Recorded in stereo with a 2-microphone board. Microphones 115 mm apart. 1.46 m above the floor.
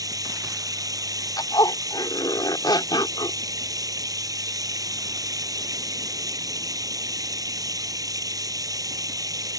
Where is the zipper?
40° left (ahead or behind).